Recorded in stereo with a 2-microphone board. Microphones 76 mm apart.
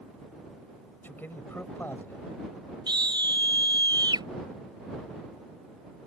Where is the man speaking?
25° left (ahead or behind).